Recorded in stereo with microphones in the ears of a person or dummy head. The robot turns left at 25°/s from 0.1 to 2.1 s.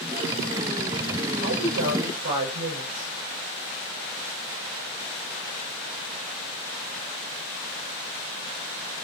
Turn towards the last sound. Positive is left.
turn(degrees=-65)  # may be behind; listen again after turning